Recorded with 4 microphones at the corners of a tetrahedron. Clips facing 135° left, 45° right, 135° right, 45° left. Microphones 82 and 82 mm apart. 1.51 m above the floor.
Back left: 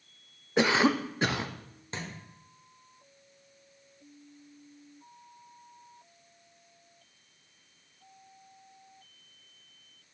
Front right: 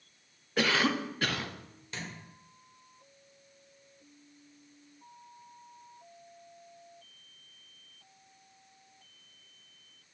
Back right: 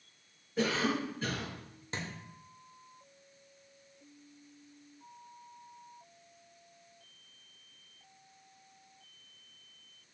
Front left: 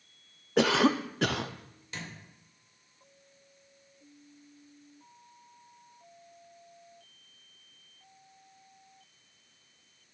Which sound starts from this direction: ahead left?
A cough, at 0.6 s.